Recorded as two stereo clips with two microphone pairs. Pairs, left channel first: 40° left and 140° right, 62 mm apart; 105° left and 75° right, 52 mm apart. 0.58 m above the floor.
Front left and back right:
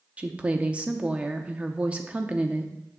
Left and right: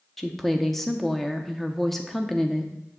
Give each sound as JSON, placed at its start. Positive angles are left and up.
{"t": 0.2, "sound": "a woman speaking", "azimuth_deg": -175, "distance_m": 0.7}